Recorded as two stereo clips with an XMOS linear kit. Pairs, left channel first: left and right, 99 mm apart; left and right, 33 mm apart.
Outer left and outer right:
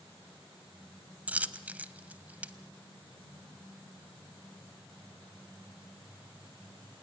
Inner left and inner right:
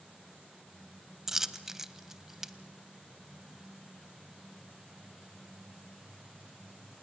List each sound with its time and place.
1.3 s a dropped coin: 15° right (ahead or behind), 0.6 m